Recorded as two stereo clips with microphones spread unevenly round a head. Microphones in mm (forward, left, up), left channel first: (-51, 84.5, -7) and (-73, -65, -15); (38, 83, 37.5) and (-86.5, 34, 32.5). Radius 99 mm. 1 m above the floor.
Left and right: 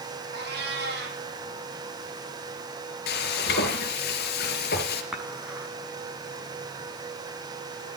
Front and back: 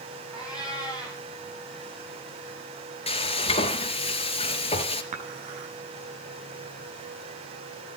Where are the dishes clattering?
Straight behind, 6 m.